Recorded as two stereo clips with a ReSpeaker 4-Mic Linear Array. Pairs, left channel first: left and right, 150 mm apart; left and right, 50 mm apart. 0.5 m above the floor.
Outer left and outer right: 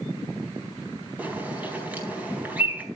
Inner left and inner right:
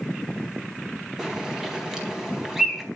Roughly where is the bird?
Centre.